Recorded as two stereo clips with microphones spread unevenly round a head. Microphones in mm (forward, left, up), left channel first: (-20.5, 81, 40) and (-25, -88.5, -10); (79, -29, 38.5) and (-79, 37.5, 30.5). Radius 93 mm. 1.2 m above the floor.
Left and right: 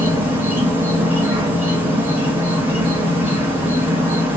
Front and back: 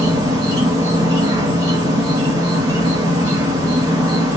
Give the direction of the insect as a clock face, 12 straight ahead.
5 o'clock.